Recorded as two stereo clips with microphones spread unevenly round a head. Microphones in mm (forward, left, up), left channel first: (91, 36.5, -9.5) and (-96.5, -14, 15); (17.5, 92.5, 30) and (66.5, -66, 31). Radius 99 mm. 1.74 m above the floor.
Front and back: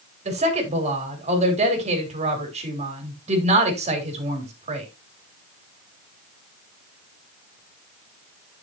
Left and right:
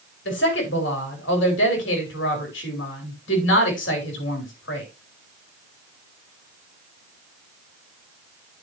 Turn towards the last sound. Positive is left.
turn(degrees=140)